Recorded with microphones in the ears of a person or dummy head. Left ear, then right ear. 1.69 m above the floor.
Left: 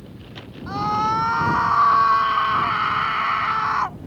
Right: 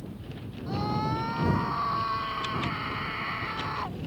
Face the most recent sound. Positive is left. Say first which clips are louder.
# left 10 dB
turn(degrees=50)  # may be behind; listen again after turning